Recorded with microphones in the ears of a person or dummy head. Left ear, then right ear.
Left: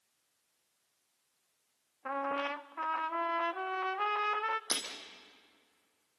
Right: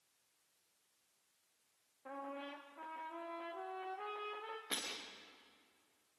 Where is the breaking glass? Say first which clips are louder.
Left 6 dB; 65° left (ahead or behind), 5 m.